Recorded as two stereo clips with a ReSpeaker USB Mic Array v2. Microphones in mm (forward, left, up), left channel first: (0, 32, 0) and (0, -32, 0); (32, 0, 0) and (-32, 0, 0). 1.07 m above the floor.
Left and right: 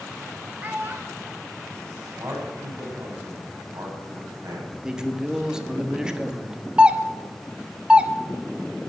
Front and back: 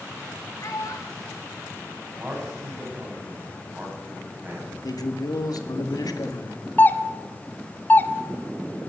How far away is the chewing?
I don't hear chewing.